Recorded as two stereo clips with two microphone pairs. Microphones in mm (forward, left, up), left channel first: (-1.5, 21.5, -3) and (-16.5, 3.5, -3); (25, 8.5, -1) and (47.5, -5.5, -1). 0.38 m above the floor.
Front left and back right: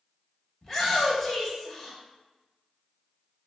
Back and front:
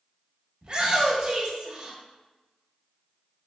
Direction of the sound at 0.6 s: 15° right.